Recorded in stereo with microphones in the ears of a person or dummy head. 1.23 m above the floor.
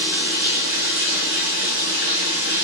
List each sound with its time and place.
0.0 s running water: 85° right, 7 m